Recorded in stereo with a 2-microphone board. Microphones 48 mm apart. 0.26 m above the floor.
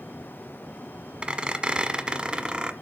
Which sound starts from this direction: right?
A squeak, at 1.2 s.